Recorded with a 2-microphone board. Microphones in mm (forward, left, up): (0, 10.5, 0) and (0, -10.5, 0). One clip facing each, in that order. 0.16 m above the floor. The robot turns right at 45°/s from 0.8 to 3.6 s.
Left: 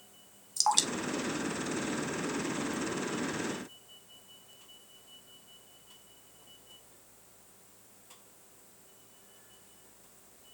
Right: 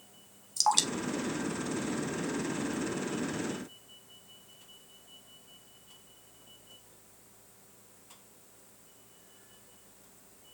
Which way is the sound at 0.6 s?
Centre (ahead or behind).